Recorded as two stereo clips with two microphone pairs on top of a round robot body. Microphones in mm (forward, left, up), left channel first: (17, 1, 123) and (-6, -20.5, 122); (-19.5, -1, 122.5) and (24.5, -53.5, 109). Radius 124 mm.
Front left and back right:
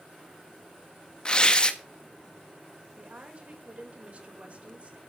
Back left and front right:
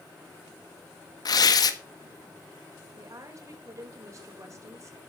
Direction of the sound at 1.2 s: 105° left.